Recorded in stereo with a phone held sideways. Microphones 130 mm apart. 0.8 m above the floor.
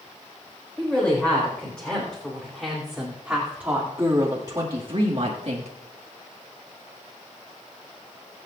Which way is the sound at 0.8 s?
10° left (ahead or behind).